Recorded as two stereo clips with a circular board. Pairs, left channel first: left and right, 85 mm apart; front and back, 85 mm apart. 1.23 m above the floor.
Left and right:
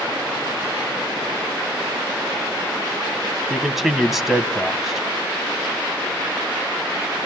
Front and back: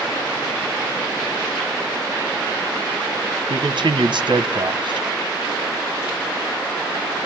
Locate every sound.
3.5 s a man speaking: 175° right, 1.1 m